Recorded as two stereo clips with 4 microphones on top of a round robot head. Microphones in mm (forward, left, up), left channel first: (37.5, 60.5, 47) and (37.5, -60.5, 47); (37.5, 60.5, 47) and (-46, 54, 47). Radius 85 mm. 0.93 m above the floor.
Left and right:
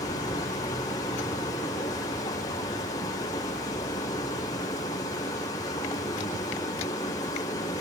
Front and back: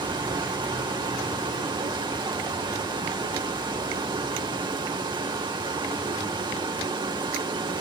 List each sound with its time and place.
0.0 s running water: 155° left, 3 m